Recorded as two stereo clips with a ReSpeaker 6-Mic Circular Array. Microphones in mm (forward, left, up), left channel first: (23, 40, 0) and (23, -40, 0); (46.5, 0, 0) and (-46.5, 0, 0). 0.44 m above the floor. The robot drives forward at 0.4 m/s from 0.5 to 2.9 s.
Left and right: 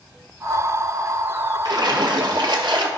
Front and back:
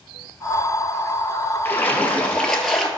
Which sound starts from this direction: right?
A splash, at 1.6 s.